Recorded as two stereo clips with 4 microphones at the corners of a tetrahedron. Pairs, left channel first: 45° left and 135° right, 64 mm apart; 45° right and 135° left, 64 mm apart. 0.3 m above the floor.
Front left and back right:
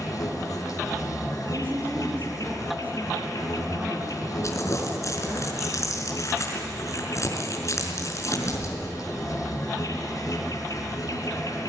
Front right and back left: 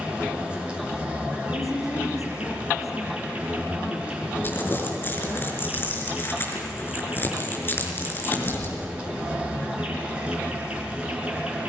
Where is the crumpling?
10° left, 5 m.